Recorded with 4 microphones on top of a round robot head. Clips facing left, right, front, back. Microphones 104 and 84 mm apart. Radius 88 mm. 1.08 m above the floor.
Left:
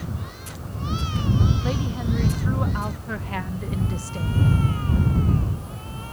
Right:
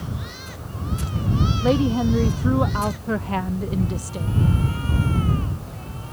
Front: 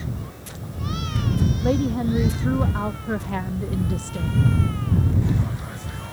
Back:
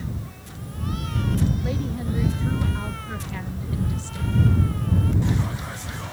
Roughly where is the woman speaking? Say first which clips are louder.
Right 8 dB, front 7 dB; ahead right.